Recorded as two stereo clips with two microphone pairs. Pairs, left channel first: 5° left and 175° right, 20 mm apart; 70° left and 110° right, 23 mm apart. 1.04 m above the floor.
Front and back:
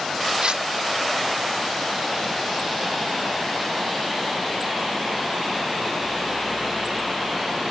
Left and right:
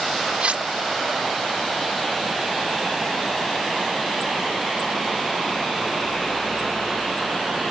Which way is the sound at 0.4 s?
145° right.